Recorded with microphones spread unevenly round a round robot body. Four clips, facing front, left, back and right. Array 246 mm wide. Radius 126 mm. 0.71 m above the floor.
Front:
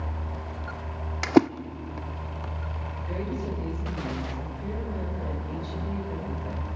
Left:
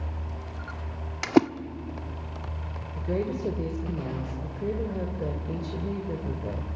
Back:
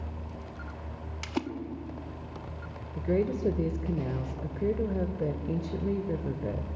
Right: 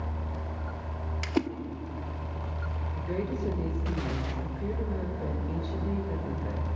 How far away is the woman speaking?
About 2.5 m.